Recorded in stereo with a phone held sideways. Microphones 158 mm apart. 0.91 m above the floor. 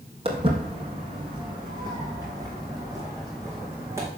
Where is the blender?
No blender in this recording.